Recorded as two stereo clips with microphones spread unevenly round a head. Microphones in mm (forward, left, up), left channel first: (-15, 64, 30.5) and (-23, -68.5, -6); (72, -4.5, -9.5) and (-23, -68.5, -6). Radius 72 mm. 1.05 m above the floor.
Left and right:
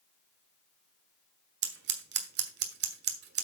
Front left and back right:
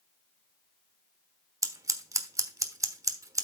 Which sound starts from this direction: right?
Scissors, at 1.6 s.